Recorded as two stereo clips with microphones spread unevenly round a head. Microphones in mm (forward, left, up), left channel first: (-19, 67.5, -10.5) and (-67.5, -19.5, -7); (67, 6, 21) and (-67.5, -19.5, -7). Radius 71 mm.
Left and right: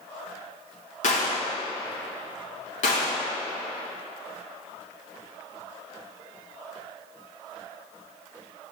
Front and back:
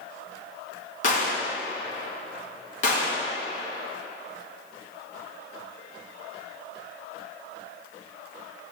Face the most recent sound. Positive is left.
turn(degrees=45)